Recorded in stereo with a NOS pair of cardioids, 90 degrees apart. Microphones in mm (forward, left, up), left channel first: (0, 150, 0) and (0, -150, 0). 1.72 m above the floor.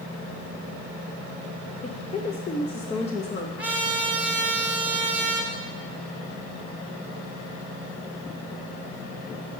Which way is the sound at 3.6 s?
5° right.